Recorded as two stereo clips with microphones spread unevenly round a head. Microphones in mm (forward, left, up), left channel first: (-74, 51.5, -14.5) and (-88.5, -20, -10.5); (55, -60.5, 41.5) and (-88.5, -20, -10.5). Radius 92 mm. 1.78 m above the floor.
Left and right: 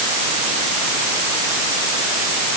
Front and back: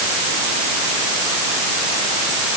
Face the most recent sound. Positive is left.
No sound to turn to.